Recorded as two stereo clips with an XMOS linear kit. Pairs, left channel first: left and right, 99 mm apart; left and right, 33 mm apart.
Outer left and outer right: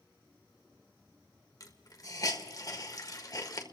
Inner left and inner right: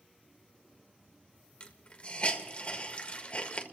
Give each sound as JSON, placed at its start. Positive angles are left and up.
{"t": 1.6, "sound": "a hiss", "side_deg": 35, "distance_m": 1.5}